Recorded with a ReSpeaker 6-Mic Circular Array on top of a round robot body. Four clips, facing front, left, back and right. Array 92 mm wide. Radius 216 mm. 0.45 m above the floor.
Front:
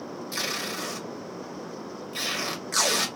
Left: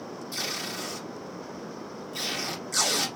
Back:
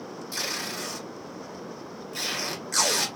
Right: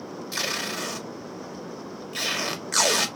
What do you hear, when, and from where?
0.3 s tape being pulled: 75° right, 1.5 m